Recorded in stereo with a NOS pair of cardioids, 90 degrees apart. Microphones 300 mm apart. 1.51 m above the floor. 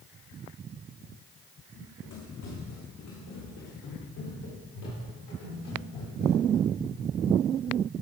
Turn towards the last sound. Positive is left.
turn(degrees=75)